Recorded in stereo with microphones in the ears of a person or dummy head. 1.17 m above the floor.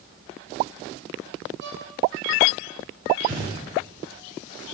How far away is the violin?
About 2.5 m.